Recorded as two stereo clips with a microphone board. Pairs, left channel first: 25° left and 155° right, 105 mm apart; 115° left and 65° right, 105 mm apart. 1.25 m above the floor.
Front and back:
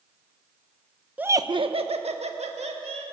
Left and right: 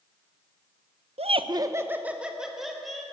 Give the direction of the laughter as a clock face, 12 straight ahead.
3 o'clock.